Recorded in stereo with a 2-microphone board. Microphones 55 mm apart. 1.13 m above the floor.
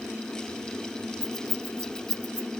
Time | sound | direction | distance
1.2 | keys jangling | 15° right (ahead or behind) | 1.0 m